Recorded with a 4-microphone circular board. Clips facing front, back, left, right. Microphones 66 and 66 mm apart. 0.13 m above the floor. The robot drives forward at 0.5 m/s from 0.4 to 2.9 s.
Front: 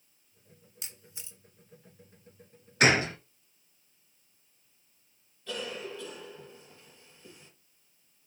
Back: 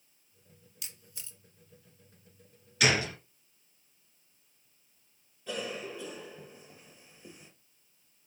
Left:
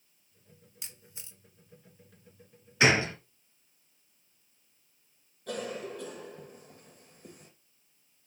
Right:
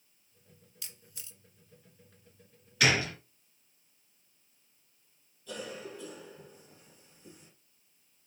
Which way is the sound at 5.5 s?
105° left.